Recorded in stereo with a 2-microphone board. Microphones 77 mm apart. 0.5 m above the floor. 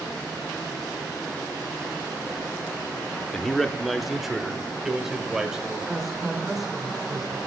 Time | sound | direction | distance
3.3 | a man speaking | 10° left (ahead or behind) | 0.7 m
5.9 | a woman speaking | centre (ahead or behind) | 2 m